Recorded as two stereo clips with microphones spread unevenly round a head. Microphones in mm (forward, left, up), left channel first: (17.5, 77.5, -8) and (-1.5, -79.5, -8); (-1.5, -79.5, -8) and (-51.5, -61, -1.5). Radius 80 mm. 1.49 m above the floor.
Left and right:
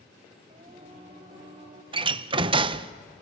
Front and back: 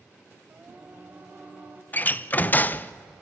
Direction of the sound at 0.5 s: 150° right.